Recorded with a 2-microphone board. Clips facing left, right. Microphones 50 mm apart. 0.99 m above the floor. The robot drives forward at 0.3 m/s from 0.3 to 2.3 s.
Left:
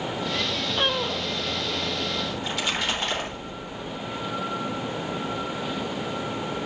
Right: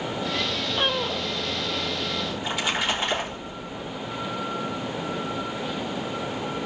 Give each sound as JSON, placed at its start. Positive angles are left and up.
{"t": 2.3, "sound": "a splash", "side_deg": -10, "distance_m": 3.0}